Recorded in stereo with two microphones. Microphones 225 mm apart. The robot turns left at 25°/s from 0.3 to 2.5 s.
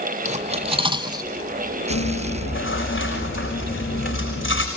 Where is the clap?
No clap in this recording.